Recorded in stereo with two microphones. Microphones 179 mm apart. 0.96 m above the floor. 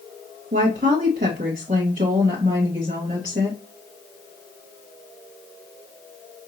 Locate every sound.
0.5 s a woman speaking: 50° right (ahead or behind), 1.3 m